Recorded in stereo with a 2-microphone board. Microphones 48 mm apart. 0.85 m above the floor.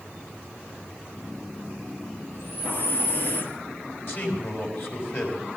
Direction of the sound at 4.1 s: 55° left (ahead or behind).